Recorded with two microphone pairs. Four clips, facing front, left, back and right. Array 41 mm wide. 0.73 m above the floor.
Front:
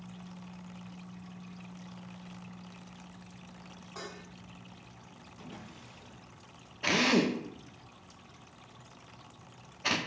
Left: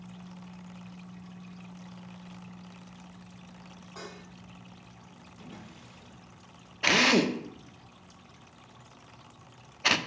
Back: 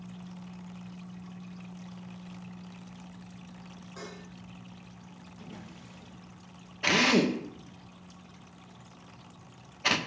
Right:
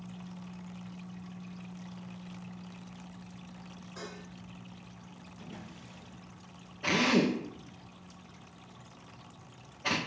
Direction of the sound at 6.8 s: 110° left.